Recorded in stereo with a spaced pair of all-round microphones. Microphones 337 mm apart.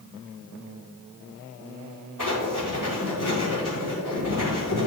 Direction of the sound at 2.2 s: 70° left (ahead or behind).